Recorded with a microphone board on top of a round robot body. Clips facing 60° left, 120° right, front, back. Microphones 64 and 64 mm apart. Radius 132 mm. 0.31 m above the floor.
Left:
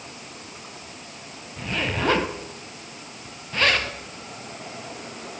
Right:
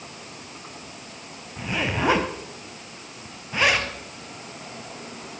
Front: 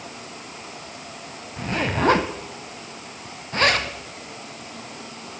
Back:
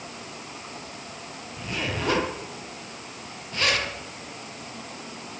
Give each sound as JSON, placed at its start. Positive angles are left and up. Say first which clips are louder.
{"t": 1.6, "sound": "a zipper", "louder": "right 1 dB, front 7 dB", "azimuth_deg": -40, "distance_m": 2.5}